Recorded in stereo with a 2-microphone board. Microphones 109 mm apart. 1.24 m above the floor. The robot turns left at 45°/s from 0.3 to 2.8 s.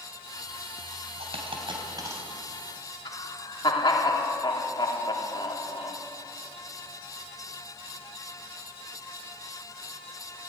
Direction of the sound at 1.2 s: 70° right (ahead or behind).